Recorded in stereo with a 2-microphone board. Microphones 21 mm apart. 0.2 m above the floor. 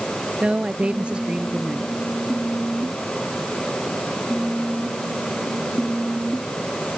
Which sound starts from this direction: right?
A woman speaking, at 0.4 s.